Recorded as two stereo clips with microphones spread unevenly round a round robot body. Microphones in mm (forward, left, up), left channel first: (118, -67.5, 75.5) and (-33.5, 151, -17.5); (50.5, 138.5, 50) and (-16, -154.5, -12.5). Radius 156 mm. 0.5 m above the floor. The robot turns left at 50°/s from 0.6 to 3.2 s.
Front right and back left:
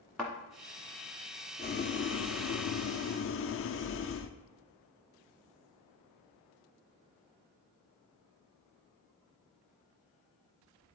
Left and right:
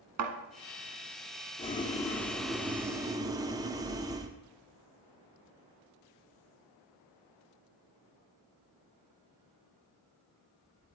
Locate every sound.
0.2 s a thud: 140° right, 1.2 m
1.6 s boiling: 5° left, 0.5 m; by 4.3 s 75° right, 0.5 m